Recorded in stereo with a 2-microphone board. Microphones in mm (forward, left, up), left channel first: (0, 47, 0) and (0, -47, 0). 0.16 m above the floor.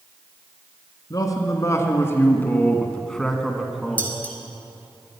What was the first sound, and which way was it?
A man speaking, 40° left (ahead or behind).